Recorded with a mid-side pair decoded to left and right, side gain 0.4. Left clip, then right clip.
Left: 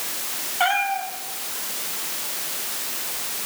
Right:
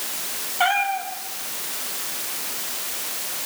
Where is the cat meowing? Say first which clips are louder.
Right 1 dB; 5° right, 6 m.